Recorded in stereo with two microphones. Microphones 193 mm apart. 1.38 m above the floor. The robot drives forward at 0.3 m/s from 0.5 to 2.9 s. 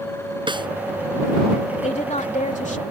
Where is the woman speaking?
35° left (ahead or behind); by 2.8 s 40° left (ahead or behind).